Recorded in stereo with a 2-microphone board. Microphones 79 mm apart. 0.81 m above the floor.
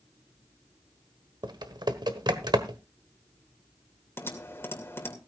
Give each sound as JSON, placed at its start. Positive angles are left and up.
{"t": 1.4, "sound": "typing on a keyboard", "side_deg": -65, "distance_m": 1.2}
{"t": 4.2, "sound": "typing on a keyboard", "side_deg": 30, "distance_m": 2.5}